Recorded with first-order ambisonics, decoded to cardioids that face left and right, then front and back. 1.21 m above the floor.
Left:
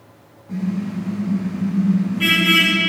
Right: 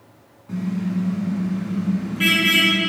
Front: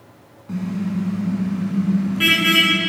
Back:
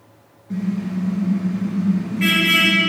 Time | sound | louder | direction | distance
0.5 | a car horn | left 1 dB, even | 20° right | 5.5 m